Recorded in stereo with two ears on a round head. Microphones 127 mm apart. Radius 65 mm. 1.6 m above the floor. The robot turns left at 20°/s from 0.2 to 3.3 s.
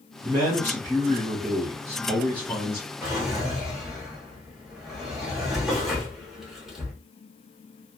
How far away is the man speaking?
About 0.9 m.